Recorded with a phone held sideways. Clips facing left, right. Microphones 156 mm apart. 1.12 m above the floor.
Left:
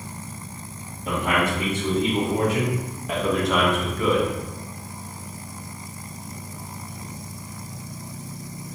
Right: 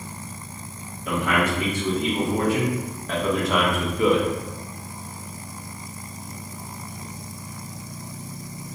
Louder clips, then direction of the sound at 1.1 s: Even; 25° left (ahead or behind).